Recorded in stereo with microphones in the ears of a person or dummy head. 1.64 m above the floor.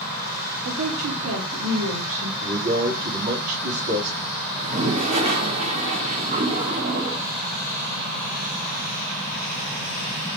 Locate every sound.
0.7 s a woman speaking: 55° right (ahead or behind), 1.1 m; by 2.3 s 70° right (ahead or behind), 1.6 m
2.4 s a man speaking: 60° right (ahead or behind), 3.5 m
4.6 s a toilet flushing: 35° right (ahead or behind), 1.0 m